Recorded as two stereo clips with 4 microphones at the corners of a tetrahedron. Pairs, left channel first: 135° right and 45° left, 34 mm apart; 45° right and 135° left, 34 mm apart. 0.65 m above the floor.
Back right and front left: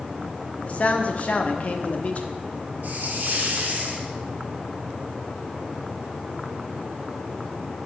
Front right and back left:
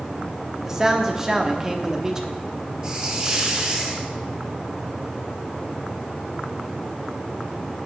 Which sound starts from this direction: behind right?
A man speaking, at 0.7 s.